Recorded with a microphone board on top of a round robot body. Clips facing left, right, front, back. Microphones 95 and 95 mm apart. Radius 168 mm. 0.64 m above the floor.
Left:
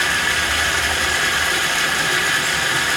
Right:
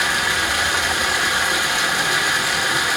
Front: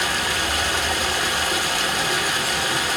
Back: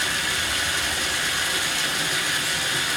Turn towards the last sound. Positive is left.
turn(degrees=-15)